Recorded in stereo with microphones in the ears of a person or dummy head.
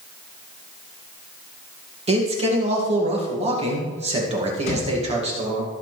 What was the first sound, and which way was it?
A man speaking, 35° right (ahead or behind).